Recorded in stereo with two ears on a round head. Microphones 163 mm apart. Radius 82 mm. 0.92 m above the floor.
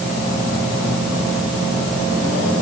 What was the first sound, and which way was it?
Only background noise.